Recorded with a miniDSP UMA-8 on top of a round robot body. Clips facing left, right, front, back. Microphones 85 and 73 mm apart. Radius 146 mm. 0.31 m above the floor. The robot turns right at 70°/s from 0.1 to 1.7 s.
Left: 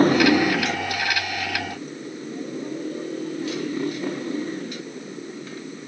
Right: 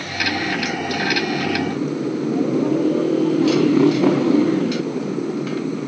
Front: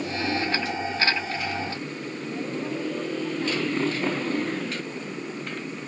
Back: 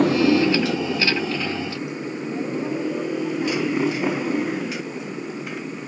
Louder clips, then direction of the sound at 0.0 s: Left 8 dB, back 11 dB; 145° left.